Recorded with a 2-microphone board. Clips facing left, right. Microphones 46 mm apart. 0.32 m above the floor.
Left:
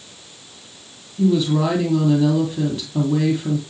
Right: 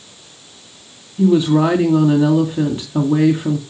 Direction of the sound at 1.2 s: 30° right (ahead or behind).